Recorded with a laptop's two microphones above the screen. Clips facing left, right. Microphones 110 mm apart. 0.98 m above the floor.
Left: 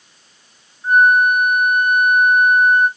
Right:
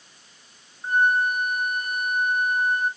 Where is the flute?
30° right (ahead or behind), 2 m.